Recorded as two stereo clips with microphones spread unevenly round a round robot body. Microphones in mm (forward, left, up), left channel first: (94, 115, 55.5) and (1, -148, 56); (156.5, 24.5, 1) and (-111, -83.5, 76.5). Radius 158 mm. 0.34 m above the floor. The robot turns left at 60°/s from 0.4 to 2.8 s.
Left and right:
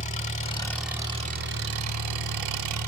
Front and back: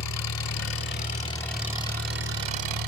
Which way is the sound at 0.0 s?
5° left.